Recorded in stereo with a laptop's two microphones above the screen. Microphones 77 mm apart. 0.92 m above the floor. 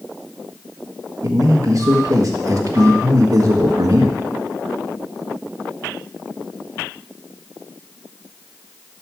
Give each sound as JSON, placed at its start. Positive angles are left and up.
{"t": 1.2, "sound": "a man speaking", "side_deg": -50, "distance_m": 1.5}